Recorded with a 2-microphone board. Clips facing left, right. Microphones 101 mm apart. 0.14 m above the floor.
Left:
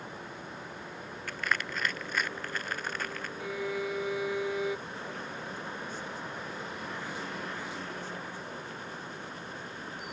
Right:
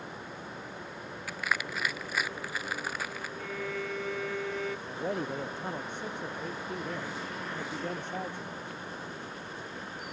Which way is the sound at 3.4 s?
15° left (ahead or behind).